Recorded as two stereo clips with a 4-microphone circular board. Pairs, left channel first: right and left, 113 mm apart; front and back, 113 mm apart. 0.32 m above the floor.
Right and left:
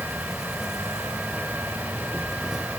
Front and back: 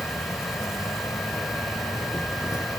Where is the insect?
5° left.